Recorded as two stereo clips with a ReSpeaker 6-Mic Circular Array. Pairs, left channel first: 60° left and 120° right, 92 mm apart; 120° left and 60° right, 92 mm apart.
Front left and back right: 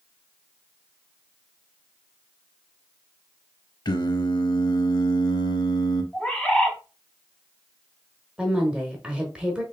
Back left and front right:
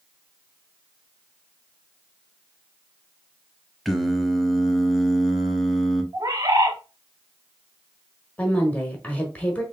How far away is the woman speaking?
About 1.1 m.